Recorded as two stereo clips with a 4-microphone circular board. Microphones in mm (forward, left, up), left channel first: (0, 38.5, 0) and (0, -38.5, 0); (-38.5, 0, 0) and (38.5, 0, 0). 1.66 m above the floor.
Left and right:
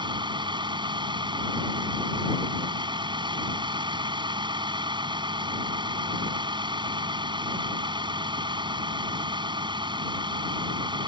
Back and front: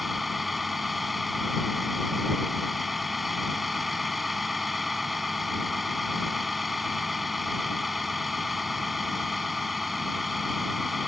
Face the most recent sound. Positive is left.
turn(degrees=-90)